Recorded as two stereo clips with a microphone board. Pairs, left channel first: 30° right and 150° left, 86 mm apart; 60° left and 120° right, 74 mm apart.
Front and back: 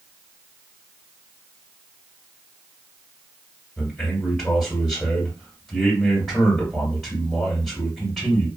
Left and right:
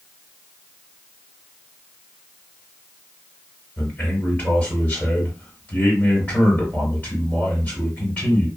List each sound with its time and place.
3.8 s a man speaking: 55° left, 1.5 m